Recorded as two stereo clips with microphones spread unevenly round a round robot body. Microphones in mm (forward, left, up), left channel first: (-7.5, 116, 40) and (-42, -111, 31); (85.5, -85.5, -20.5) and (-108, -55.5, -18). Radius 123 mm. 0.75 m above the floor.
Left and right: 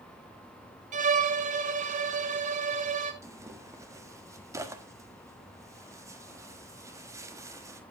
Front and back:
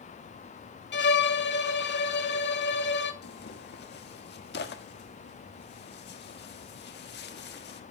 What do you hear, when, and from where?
0.9 s a violin: 40° right, 1.5 m
3.2 s tearing paper: 25° right, 1.5 m